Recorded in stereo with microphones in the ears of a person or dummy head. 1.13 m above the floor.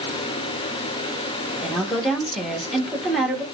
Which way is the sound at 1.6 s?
Centre (ahead or behind).